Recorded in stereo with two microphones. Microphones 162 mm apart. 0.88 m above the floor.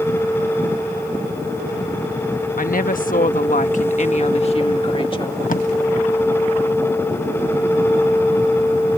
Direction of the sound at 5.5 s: 55° left (ahead or behind).